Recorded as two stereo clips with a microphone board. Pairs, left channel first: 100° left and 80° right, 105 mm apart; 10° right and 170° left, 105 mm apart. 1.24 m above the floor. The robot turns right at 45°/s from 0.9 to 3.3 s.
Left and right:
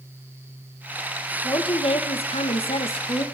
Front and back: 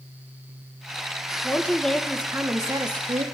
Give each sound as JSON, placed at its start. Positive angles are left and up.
{"t": 1.4, "sound": "a woman speaking", "azimuth_deg": 55, "distance_m": 1.5}